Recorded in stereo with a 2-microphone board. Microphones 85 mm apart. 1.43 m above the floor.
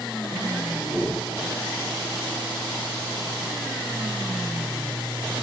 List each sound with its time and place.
0.8 s a whoosh: 45° right (ahead or behind), 2.5 m